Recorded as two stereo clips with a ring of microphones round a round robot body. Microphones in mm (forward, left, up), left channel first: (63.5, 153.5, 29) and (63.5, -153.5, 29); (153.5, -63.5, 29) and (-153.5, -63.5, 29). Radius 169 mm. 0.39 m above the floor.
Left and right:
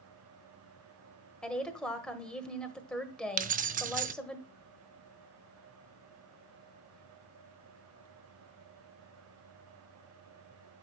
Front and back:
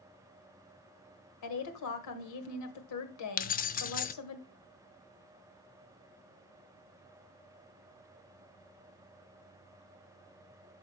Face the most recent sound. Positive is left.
turn(degrees=-45)